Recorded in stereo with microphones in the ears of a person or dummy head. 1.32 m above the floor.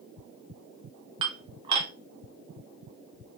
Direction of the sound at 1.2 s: 30° right (ahead or behind).